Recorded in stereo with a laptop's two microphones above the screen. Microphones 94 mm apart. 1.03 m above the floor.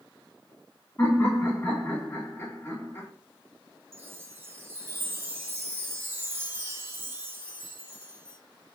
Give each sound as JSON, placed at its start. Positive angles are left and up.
{"t": 1.0, "sound": "laughter", "side_deg": 25, "distance_m": 2.5}
{"t": 3.9, "sound": "a chime", "side_deg": -25, "distance_m": 1.0}